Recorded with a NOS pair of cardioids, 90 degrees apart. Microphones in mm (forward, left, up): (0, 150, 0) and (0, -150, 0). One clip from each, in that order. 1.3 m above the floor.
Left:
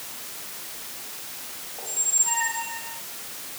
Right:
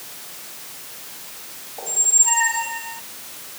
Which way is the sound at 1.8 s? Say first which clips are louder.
Right 7 dB; 45° right.